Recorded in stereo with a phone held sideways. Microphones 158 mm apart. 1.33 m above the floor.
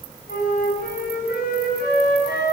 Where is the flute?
80° left, 9.5 m.